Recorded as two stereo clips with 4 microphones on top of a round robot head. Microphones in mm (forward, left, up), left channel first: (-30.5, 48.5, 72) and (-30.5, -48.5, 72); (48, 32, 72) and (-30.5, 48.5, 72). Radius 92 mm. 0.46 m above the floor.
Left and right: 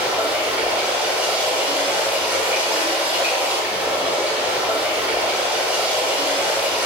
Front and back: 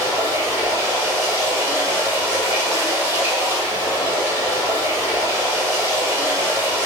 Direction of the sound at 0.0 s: 160° right.